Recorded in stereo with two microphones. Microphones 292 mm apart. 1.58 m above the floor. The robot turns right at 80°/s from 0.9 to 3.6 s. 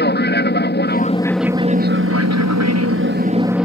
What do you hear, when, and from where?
0.0 s an aircraft: 140° left; by 3.7 s 5° right